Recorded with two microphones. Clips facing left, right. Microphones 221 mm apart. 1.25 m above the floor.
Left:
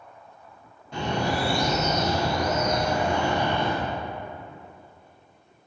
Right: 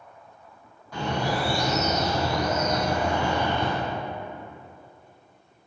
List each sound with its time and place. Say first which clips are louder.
0.9 s a bird: left 1 dB; 25° left (ahead or behind), 1.1 m